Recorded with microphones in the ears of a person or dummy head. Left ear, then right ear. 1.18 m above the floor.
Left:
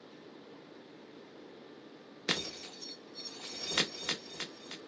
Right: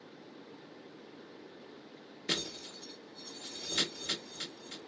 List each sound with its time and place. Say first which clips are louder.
2.3 s breaking glass: even; 45° left (ahead or behind), 0.9 m